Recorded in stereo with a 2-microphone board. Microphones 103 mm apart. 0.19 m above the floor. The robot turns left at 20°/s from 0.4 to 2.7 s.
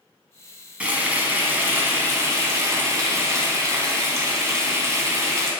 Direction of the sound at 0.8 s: 20° right.